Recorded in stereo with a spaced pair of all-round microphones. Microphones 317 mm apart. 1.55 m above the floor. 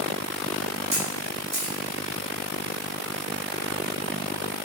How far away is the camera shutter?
About 6.5 m.